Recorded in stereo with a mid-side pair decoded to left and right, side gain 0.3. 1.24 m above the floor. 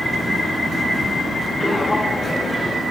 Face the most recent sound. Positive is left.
turn(degrees=30)